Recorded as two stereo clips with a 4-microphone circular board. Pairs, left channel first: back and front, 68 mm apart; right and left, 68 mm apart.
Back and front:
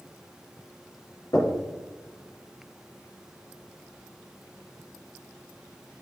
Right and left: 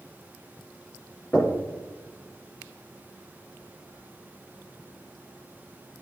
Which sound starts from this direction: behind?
Knocking, at 1.3 s.